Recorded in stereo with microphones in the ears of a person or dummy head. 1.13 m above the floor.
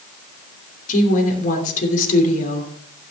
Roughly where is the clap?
No clap in this recording.